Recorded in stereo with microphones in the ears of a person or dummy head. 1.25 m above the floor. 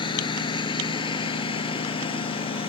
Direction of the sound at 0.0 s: 25° left (ahead or behind).